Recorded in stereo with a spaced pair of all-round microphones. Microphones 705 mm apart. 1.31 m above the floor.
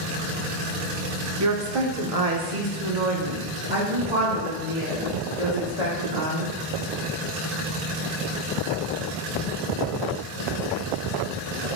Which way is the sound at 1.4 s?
25° right (ahead or behind).